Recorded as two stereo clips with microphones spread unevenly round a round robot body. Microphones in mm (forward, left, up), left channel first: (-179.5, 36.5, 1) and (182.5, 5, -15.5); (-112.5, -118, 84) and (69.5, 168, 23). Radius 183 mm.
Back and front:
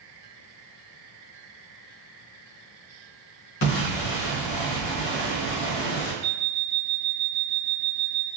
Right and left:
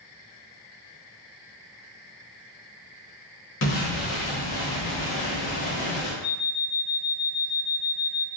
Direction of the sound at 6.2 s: 55° right.